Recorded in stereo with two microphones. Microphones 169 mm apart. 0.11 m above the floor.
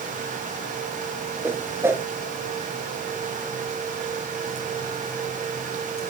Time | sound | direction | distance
1.4 | a whoosh | 15° right (ahead or behind) | 0.8 m